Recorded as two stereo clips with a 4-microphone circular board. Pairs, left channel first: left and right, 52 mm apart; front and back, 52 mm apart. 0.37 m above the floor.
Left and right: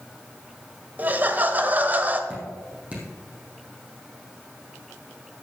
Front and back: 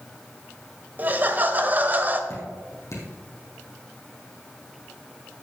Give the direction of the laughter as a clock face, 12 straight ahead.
4 o'clock.